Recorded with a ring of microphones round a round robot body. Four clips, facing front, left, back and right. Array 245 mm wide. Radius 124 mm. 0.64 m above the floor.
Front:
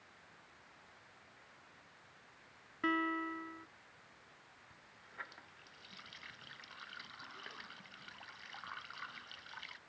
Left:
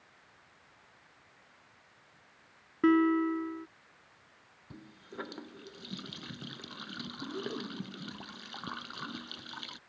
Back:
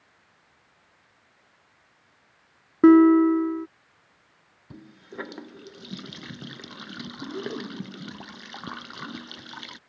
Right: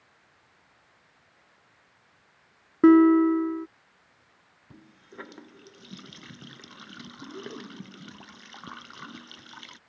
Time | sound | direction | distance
2.8 | a guitar | 150° right | ?
4.7 | a running tap | 175° left | ?